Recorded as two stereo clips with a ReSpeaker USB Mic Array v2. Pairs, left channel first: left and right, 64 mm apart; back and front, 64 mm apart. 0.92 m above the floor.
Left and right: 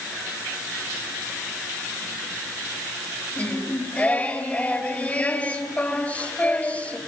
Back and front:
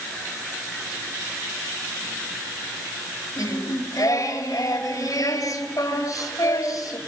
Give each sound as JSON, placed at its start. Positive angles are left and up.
{"t": 3.4, "sound": "singing", "azimuth_deg": 155, "distance_m": 3.5}